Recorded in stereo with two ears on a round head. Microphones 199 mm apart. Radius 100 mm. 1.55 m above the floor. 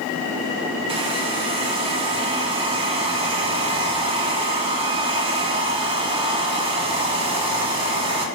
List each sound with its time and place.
0.9 s a hair dryer: 25° right (ahead or behind), 3.5 m